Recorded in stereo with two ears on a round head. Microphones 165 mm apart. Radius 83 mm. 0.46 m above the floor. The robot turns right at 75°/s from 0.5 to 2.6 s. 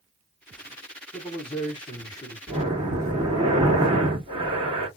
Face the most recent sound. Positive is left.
turn(degrees=-30)  # may be behind; listen again after turning